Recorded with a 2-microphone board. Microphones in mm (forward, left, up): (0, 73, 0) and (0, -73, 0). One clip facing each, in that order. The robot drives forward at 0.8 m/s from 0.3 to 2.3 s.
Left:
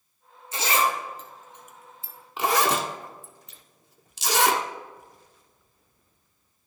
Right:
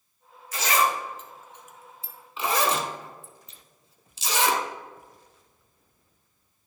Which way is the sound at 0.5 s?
25° left (ahead or behind).